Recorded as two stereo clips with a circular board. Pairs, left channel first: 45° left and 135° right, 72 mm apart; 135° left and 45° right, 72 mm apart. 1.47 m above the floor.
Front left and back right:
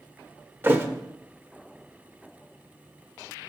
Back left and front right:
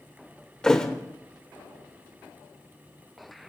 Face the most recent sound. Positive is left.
turn(degrees=-155)